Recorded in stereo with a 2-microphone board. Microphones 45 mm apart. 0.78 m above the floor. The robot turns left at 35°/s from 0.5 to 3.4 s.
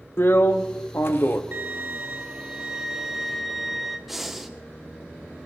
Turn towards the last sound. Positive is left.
turn(degrees=-5)  # may be behind; listen again after turning